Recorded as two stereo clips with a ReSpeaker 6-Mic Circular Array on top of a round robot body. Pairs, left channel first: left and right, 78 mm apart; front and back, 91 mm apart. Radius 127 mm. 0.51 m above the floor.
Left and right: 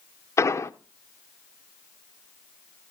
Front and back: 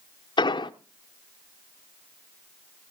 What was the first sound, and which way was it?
An explosion, 35° left.